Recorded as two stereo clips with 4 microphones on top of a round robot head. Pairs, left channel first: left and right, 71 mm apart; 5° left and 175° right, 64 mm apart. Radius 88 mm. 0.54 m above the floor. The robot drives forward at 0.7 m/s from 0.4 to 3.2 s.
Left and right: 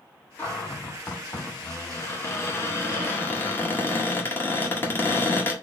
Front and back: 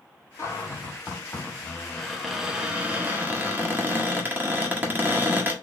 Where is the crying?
I don't hear crying.